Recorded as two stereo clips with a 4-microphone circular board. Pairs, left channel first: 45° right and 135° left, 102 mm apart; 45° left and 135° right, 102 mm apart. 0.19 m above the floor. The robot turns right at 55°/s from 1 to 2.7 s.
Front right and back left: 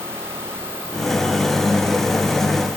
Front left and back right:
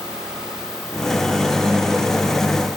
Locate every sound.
Only background noise.